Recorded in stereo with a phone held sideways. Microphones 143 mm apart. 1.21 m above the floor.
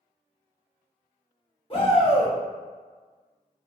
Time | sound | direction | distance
1.7 | a shout | 35° left (ahead or behind) | 1.3 m